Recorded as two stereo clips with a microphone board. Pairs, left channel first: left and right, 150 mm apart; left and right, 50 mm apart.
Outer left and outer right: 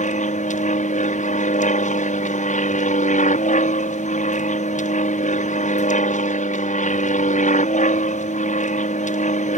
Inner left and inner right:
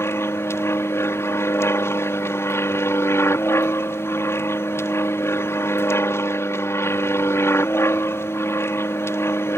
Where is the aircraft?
60° left (ahead or behind).